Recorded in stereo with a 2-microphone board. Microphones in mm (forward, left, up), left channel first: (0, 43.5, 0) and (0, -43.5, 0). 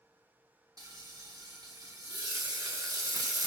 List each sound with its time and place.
0.8 s frying: 45° right (ahead or behind), 1.0 m